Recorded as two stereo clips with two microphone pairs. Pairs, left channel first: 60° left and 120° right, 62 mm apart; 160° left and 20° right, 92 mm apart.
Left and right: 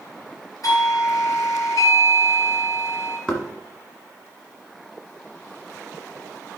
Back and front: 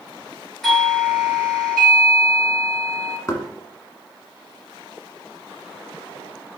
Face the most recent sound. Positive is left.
turn(degrees=130)